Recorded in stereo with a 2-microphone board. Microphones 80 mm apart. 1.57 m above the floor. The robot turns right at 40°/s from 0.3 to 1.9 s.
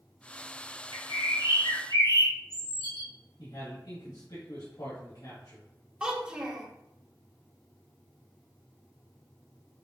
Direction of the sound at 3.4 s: 80° left.